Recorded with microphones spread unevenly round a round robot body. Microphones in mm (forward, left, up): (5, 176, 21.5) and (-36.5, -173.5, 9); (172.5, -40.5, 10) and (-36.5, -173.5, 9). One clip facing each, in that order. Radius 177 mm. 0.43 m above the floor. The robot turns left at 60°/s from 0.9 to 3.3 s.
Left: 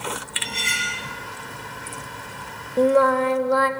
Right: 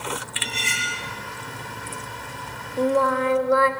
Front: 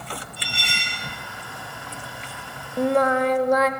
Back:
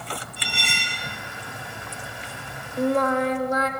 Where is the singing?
65° left, 0.8 m; by 3.7 s 35° left, 0.8 m.